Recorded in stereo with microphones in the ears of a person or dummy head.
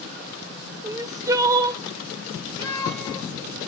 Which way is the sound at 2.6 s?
10° left (ahead or behind).